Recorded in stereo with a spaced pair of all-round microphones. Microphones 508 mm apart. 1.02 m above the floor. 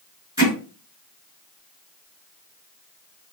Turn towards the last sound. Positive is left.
turn(degrees=-5)  # may be behind; listen again after turning